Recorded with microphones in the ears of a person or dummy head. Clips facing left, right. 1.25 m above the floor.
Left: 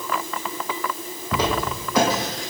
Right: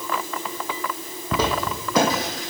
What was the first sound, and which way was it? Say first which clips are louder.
Footsteps: even; 55° right (ahead or behind).